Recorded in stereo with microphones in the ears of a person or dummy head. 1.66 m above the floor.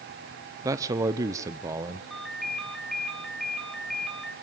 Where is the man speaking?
15° right (ahead or behind), 0.7 m.